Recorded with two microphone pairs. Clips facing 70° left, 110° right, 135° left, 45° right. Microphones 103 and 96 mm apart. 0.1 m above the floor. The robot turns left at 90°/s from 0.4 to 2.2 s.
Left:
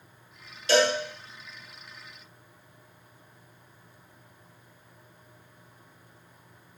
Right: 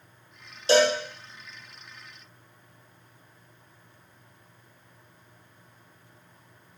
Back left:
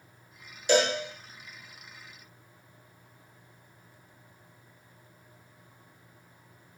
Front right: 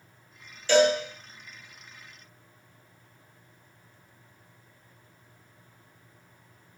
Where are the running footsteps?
I don't hear running footsteps.